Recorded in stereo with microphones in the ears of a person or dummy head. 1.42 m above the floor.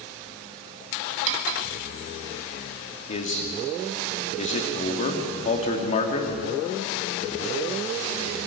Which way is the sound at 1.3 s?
70° right (ahead or behind).